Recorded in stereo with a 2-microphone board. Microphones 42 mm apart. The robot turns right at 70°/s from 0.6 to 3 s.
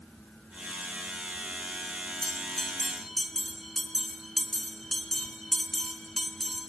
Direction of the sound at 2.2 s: 20° left (ahead or behind).